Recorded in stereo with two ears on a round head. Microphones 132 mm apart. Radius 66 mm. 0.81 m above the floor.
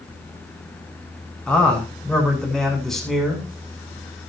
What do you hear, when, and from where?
1.5 s a man speaking: 10° left (ahead or behind), 8 m; by 3.5 s centre (ahead or behind), 8 m